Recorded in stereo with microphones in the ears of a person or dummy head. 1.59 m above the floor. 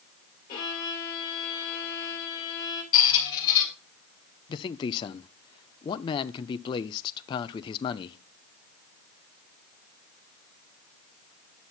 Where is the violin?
30° left (ahead or behind), 3 m.